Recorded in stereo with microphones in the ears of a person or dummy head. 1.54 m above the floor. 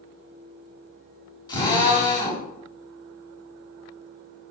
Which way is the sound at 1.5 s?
25° left (ahead or behind).